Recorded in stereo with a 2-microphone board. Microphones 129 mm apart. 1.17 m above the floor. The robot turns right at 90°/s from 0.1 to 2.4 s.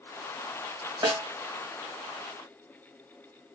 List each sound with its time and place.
1.0 s a snare drum: 40° right (ahead or behind), 1.3 m; by 1.2 s 20° right (ahead or behind), 1.3 m